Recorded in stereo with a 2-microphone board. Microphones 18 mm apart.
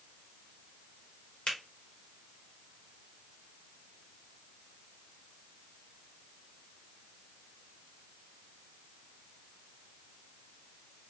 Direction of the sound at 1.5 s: 60° left (ahead or behind).